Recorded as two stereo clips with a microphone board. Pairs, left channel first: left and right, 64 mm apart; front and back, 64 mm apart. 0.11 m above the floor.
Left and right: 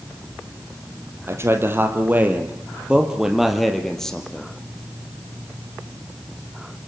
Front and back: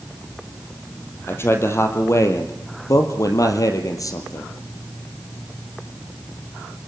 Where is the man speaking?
45° right, 4 m; by 4.5 s 15° left, 4 m.